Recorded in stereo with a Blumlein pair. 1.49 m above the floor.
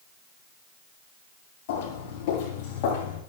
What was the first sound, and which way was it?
Footsteps, 50° left.